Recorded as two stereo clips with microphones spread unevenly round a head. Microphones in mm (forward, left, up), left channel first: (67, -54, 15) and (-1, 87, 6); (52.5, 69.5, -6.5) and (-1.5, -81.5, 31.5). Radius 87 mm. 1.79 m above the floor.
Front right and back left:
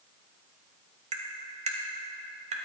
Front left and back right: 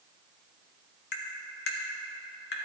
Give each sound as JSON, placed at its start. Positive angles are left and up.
{"t": 1.1, "sound": "tapping", "azimuth_deg": 85, "distance_m": 1.5}